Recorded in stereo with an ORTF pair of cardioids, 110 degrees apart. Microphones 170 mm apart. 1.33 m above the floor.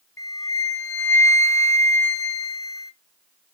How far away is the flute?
About 1.0 m.